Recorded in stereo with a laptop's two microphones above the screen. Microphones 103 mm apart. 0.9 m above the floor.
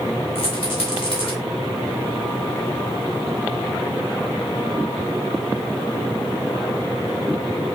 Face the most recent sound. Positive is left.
turn(degrees=65)  # may be behind; listen again after turning